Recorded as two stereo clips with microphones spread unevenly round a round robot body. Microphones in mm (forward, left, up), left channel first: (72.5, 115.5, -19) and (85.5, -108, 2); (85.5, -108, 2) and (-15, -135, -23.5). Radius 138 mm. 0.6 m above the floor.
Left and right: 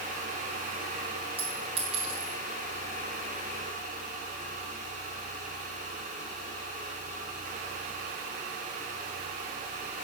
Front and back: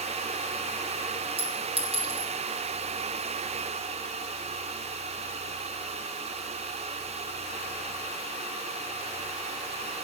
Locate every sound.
1.4 s a clink: 160° right, 1.5 m